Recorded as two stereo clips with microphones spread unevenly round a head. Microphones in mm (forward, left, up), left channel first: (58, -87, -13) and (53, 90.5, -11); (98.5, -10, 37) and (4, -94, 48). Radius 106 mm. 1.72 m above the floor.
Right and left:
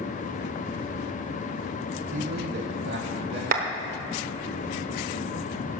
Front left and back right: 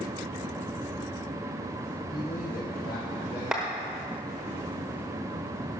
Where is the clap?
135° left, 1.0 m.